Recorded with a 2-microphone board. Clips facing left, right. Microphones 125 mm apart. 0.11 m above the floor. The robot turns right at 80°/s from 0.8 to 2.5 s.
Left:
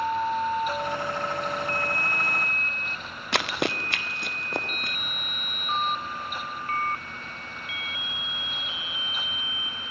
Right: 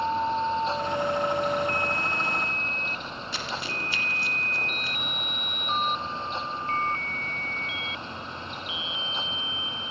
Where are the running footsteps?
70° left (ahead or behind), 1.3 m; by 5.0 s 60° left (ahead or behind), 4 m.